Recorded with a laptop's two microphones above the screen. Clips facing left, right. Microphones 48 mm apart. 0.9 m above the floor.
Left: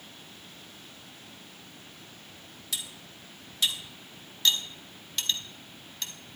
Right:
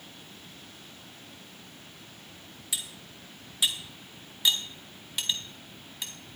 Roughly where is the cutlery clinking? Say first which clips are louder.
Even; centre.